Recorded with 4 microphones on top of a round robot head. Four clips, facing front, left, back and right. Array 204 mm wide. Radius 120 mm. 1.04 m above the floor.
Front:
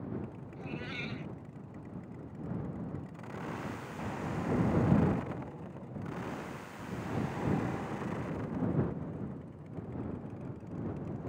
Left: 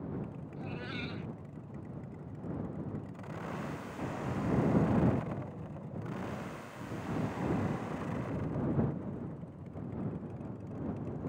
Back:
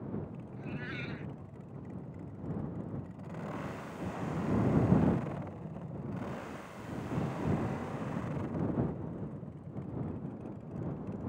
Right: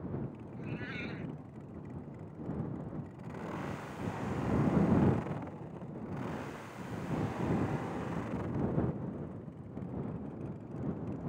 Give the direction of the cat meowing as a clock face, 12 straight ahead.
10 o'clock.